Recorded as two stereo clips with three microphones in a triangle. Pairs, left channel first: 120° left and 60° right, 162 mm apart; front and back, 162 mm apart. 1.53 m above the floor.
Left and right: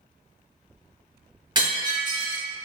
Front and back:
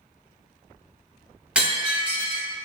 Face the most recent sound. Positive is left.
turn(degrees=-100)